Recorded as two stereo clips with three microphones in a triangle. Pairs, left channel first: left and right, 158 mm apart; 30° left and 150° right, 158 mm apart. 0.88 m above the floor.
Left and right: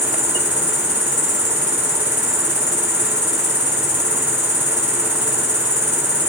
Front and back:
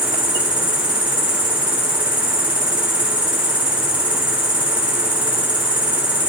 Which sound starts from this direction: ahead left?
An insect, at 0.0 s.